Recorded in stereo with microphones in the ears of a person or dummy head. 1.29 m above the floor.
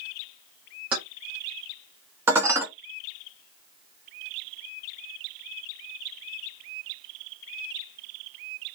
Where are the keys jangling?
10° right (ahead or behind), 1.0 m.